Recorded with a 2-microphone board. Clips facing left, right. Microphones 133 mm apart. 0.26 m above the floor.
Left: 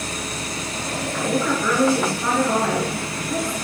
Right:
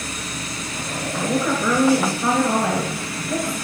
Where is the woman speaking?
20° right (ahead or behind), 3.5 m.